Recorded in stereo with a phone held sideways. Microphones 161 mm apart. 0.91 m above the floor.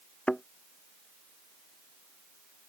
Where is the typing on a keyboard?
No typing on a keyboard in this recording.